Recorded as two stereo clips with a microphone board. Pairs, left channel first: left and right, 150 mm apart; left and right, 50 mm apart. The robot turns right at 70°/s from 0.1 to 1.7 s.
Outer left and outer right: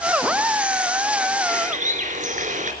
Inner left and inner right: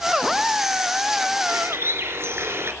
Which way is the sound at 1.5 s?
65° right (ahead or behind).